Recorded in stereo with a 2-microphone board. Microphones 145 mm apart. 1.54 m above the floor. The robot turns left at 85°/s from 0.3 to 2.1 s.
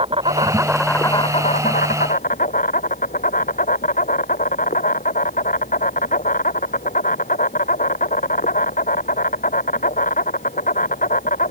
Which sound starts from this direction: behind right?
An insect, at 0.0 s.